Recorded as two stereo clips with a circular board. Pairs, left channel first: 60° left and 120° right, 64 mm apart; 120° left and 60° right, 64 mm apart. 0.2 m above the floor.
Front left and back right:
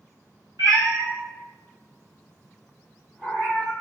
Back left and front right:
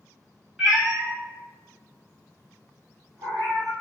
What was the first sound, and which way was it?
A cat meowing, 145° right.